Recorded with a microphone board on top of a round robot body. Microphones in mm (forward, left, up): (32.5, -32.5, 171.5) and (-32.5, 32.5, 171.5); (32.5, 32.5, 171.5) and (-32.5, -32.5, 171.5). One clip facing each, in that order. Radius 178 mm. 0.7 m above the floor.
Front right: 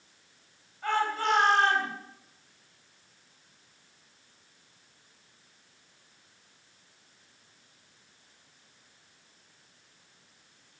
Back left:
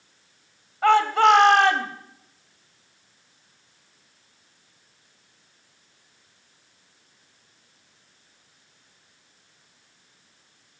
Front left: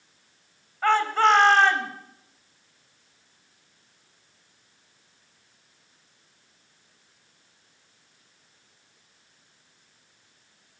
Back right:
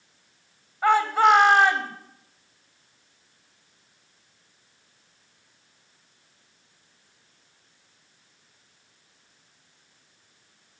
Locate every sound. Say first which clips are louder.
0.8 s a shout: back left 11 dB, back right 2 dB; 145° left, 2 m